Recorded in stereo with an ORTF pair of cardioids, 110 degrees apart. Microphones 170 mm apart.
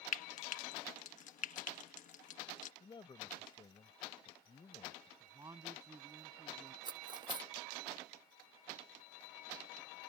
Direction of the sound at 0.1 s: 50° left.